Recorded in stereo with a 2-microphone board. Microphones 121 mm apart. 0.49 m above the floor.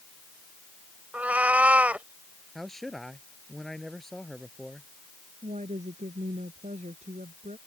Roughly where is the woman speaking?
Right.